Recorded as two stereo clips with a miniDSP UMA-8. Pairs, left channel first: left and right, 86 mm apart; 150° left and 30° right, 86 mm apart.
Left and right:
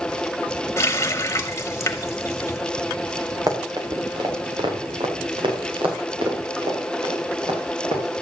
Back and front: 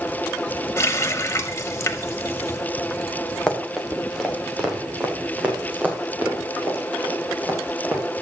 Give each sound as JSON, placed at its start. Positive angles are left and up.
{"t": 0.8, "sound": "a running tap", "azimuth_deg": 120, "distance_m": 0.8}
{"t": 3.5, "sound": "running footsteps", "azimuth_deg": -130, "distance_m": 2.5}